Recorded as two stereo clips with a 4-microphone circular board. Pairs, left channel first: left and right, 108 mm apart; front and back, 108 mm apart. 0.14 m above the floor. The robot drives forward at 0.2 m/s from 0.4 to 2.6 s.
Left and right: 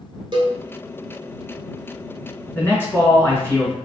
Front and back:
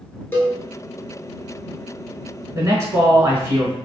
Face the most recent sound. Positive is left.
turn(degrees=140)